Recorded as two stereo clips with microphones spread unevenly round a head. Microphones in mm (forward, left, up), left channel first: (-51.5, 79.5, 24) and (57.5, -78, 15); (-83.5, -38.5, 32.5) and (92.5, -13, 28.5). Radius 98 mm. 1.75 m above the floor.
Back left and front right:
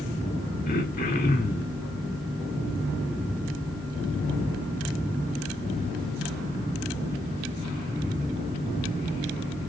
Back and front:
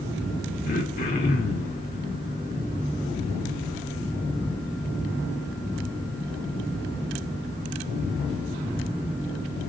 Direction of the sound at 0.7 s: 155° left.